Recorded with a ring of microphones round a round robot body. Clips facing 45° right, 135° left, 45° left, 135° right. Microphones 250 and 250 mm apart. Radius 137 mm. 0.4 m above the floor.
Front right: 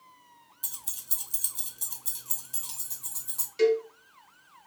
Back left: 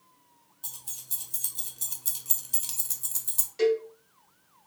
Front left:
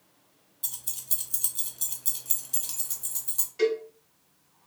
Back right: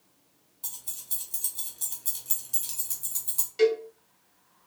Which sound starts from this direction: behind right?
A cowbell, at 3.6 s.